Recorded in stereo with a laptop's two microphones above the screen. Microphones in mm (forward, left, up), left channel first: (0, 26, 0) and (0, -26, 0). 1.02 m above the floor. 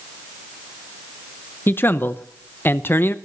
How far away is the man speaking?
About 0.7 m.